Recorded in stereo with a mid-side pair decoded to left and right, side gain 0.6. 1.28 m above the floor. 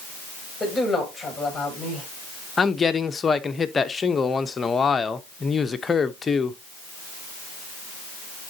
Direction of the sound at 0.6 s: 15° left.